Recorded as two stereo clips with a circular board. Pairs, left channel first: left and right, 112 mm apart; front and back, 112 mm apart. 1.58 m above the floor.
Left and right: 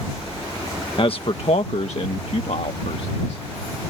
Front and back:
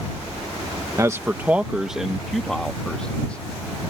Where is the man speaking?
125° left; by 3.5 s 80° left.